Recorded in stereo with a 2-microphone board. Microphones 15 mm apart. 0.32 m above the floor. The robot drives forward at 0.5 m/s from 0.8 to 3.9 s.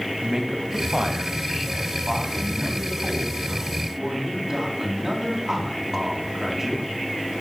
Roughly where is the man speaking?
Right.